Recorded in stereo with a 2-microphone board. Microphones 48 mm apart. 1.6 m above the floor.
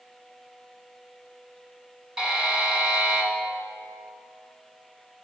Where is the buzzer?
15° right (ahead or behind), 2.5 m.